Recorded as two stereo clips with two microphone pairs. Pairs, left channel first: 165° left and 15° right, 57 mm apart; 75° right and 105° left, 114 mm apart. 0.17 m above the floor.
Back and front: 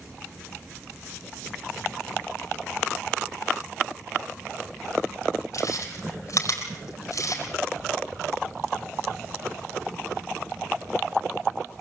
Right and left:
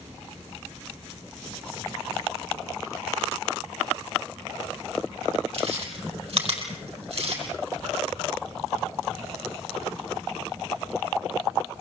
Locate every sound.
5.5 s chewing: 135° left, 5.5 m